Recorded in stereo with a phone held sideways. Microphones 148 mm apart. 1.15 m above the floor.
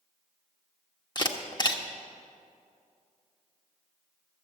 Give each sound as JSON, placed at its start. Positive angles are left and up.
{"t": 1.1, "sound": "a camera shutter", "side_deg": 30, "distance_m": 0.9}